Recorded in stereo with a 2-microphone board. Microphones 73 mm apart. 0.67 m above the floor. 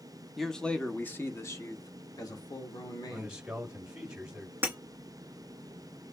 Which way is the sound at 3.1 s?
15° right (ahead or behind).